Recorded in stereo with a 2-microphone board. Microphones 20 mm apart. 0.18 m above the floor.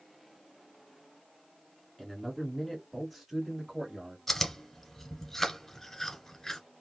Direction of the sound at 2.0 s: 20° left (ahead or behind).